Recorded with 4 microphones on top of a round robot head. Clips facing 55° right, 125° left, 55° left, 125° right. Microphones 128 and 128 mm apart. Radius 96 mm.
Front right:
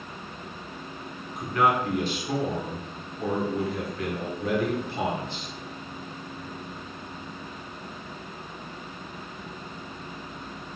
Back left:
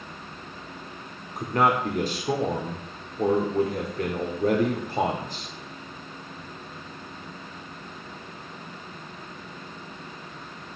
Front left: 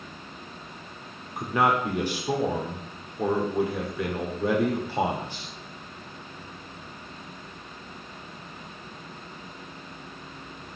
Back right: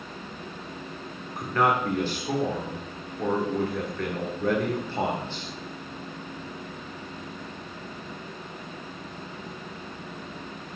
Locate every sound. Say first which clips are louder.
1.4 s a man speaking: back left 1 dB, even; 125° left, 1.0 m